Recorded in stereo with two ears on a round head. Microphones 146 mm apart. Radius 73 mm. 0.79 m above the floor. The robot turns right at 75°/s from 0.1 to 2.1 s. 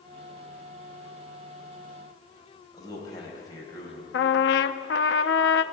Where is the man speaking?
20° left (ahead or behind), 4.5 m.